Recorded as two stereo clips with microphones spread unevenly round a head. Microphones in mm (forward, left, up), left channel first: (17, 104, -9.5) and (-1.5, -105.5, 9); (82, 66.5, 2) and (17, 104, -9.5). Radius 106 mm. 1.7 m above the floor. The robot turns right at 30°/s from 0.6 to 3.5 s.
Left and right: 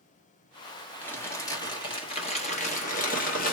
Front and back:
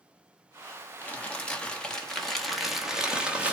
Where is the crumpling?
Straight ahead, 1.2 m; by 3.5 s 75° left, 1.2 m.